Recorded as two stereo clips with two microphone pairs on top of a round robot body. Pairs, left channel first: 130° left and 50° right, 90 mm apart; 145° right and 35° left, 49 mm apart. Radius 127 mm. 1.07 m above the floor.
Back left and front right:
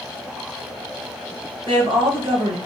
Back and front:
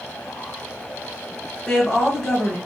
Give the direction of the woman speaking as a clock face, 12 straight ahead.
2 o'clock.